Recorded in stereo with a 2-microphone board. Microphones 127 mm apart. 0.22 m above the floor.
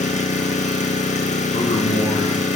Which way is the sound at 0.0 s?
80° left.